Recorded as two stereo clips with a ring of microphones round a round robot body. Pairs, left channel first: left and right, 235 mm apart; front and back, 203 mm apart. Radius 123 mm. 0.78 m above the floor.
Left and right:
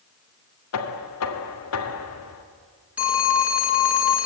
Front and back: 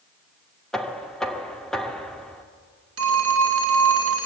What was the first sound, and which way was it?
Knocking, 85° left.